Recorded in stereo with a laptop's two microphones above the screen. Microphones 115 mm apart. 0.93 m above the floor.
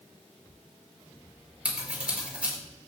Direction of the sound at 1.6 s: 10° right (ahead or behind).